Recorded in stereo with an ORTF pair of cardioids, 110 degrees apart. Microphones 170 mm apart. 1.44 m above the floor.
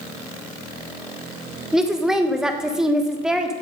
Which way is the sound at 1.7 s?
5° right.